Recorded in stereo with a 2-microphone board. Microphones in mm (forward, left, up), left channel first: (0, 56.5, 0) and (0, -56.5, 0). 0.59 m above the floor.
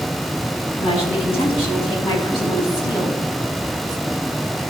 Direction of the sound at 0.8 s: 60° left (ahead or behind).